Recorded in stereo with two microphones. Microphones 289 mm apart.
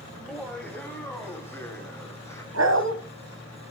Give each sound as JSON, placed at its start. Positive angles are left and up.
{"t": 0.1, "sound": "laughter", "side_deg": 0, "distance_m": 2.5}
{"t": 2.5, "sound": "a dog barking", "side_deg": -60, "distance_m": 1.9}